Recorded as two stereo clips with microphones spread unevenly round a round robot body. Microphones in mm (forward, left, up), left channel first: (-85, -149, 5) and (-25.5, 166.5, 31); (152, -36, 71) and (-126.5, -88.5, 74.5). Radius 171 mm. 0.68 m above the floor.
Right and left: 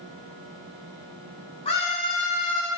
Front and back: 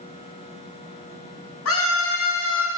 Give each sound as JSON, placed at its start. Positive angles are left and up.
{"t": 1.6, "sound": "a scream", "azimuth_deg": -25, "distance_m": 6.0}